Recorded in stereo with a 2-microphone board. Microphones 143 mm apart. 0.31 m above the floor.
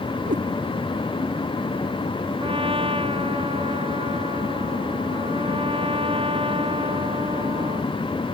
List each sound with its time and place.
0.3 s a cat meowing: 80° right
2.4 s a trumpet: 40° right (ahead or behind)